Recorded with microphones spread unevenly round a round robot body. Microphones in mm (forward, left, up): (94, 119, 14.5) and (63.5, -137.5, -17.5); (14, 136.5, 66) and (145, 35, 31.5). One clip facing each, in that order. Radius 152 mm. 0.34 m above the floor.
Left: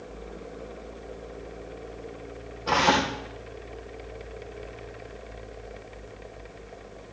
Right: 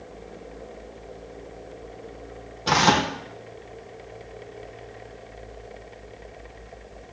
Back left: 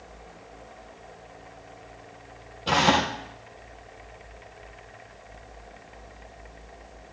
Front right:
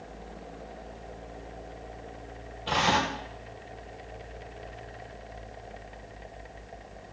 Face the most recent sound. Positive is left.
turn(degrees=-150)